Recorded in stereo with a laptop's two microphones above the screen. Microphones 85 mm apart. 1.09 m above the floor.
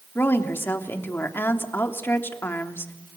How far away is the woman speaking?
About 3 m.